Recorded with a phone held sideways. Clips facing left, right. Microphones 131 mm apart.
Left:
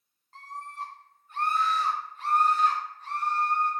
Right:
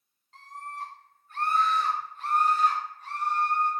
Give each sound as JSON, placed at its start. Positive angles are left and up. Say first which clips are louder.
{"t": 0.3, "sound": "a scream", "louder": "even", "side_deg": 35, "distance_m": 1.6}